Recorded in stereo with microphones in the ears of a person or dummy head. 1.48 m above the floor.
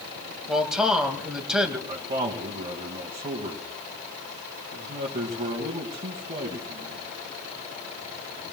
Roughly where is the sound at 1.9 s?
Right.